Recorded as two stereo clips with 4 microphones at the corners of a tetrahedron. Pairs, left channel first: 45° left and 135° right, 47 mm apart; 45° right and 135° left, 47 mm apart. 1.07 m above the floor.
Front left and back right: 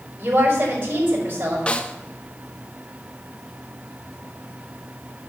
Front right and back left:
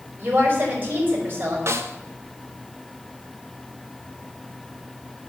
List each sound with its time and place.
0.2 s a woman speaking: 170° right, 5.5 m
1.7 s a snare drum: 115° left, 0.7 m